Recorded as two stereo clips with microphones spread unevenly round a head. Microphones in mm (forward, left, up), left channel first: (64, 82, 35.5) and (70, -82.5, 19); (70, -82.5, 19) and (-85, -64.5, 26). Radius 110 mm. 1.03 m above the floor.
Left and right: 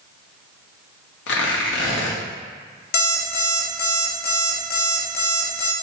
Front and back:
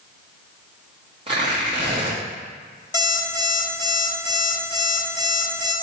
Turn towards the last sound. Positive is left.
turn(degrees=65)